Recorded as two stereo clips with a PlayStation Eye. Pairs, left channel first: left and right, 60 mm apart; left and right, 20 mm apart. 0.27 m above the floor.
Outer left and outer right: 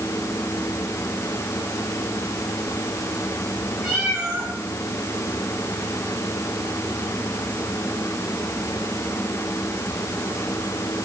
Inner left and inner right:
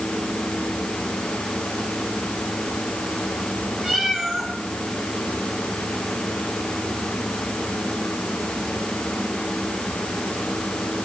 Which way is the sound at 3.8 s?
20° right (ahead or behind).